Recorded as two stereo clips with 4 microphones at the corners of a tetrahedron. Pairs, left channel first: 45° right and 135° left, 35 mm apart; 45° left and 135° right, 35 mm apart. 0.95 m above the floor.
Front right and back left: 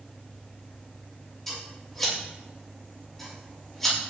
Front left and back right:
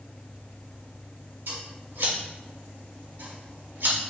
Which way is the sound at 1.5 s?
125° right.